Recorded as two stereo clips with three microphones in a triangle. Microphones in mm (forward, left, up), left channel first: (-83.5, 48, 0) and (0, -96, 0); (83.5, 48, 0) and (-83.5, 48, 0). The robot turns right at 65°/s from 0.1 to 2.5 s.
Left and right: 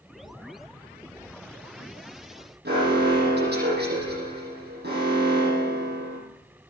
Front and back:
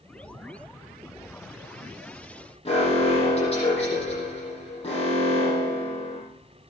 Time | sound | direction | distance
2.6 | an alarm | 55° right | 8.5 m